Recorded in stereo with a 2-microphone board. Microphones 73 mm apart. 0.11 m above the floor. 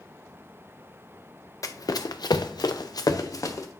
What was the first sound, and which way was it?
Running footsteps, 55° left (ahead or behind).